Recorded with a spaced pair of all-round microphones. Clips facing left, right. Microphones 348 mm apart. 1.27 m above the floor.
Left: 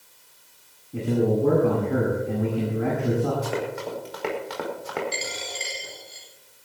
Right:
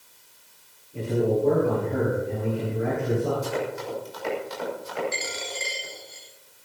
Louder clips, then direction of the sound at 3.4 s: Even; 80° left.